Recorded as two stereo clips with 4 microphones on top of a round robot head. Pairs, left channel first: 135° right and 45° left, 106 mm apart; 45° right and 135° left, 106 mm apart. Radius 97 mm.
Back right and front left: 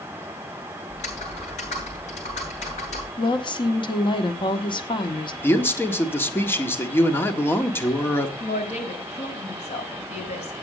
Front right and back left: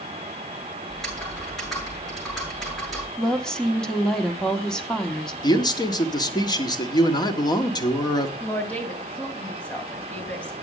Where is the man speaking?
75° right, 1.8 m.